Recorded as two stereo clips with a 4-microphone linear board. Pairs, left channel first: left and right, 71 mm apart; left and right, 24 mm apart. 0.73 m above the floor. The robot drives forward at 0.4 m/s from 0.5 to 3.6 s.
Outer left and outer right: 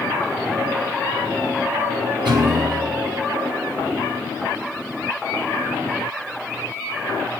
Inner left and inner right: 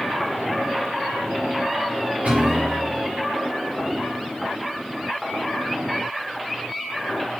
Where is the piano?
75° right (ahead or behind), 6 m; by 3.1 s 70° right (ahead or behind), 6 m.